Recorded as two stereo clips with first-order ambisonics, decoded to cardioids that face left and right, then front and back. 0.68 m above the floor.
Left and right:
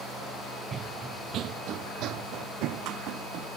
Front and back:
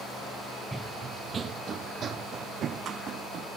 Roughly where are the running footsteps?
Right.